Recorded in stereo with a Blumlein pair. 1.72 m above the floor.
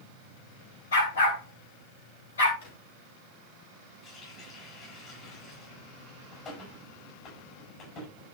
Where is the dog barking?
65° left, 4 m.